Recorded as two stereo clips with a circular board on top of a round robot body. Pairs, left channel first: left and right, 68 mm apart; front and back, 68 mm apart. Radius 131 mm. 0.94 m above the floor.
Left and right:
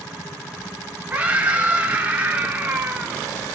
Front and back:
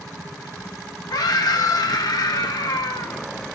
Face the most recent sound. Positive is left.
turn(degrees=-20)